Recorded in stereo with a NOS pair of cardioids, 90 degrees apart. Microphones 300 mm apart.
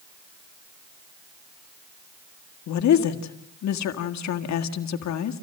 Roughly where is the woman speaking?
Ahead left.